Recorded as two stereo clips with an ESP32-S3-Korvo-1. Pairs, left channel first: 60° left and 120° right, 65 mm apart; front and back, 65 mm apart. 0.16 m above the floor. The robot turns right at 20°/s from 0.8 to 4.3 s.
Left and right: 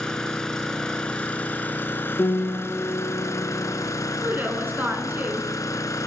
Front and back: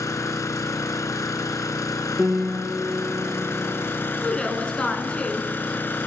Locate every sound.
0.0 s an engine running: 20° right, 0.8 m; by 6.1 s 50° left, 0.8 m
2.2 s a piano: 105° left, 2.5 m; by 3.9 s 140° left, 2.5 m
4.2 s a woman speaking: 75° right, 1.6 m; by 5.5 s 70° right, 1.6 m